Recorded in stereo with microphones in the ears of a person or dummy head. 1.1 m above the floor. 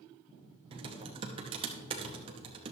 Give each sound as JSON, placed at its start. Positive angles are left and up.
{"t": 0.7, "sound": "typing on a keyboard", "side_deg": -25, "distance_m": 0.9}